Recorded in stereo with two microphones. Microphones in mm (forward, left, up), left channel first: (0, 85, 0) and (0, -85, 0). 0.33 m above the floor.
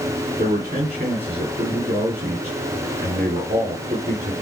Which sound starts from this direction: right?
A man speaking, at 0.4 s.